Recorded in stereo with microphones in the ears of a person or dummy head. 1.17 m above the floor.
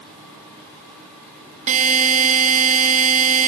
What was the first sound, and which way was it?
A buzzer, 40° right (ahead or behind).